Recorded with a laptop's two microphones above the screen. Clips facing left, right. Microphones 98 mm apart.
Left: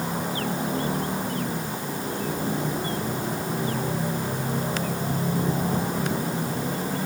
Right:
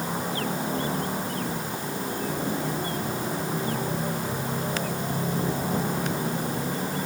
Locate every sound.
Only background noise.